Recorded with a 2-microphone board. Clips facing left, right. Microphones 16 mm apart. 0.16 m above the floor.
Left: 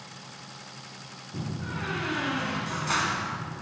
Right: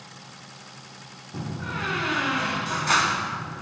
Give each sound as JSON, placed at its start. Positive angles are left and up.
{"t": 1.3, "sound": "a door slam", "side_deg": -25, "distance_m": 0.9}